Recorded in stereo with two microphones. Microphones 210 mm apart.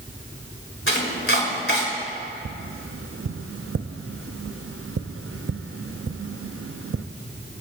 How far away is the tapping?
About 0.6 m.